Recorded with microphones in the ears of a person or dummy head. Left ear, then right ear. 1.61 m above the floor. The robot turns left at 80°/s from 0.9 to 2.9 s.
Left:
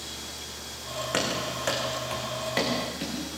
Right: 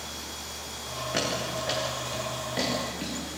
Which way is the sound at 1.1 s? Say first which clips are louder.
Left 1 dB; 35° left (ahead or behind).